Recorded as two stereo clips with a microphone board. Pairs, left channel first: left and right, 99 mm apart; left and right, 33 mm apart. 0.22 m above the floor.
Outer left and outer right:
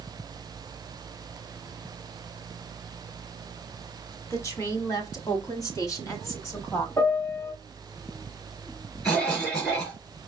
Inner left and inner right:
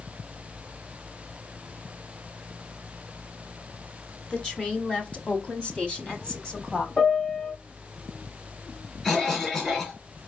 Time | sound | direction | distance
4.3 | a woman speaking | 30° left (ahead or behind) | 1.6 m
7.0 | a piano | 30° left (ahead or behind) | 1.0 m
9.0 | a cough | 20° left (ahead or behind) | 3.5 m